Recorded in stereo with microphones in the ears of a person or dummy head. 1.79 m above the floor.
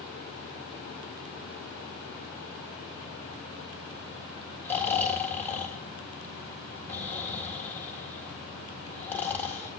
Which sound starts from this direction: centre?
Snoring, at 4.6 s.